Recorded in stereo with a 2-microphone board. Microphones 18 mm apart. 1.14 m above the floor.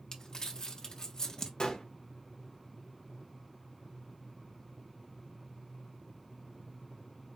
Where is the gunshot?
40° left (ahead or behind), 0.7 m.